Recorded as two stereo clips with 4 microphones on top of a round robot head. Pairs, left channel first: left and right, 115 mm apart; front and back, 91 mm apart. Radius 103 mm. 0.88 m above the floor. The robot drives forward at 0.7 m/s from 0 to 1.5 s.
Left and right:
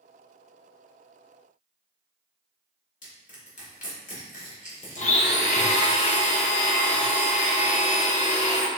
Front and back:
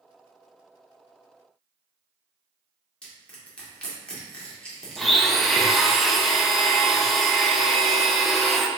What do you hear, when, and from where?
3.0 s crushing: 80° left, 1.8 m
5.0 s a blender: 90° left, 0.8 m